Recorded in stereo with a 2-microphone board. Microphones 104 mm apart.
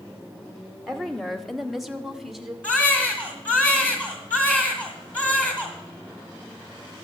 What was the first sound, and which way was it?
A woman speaking, 5° left (ahead or behind).